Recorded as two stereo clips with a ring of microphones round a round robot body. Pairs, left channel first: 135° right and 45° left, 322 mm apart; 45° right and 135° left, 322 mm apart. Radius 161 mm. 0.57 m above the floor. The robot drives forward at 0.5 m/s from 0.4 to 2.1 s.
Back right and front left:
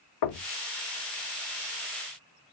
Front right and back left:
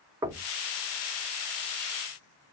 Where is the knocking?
145° right, 0.7 m; by 0.5 s 150° right, 0.7 m.